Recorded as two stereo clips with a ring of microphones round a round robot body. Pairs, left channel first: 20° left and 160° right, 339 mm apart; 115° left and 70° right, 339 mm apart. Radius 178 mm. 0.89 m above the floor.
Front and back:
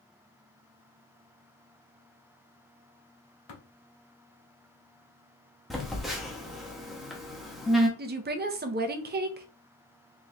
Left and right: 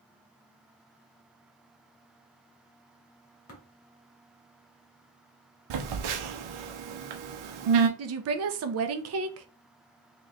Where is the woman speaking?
100° right, 0.7 m.